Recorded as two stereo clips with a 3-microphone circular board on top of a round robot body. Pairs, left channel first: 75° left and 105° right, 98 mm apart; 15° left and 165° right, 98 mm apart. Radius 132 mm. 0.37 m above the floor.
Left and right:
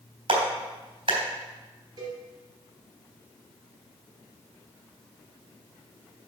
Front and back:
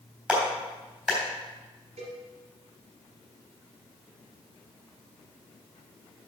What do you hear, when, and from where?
0.3 s a clap: 85° right, 3.5 m
2.0 s a cowbell: 160° right, 3 m